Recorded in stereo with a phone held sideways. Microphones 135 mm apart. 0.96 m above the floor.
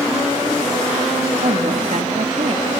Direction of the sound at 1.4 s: 60° right (ahead or behind).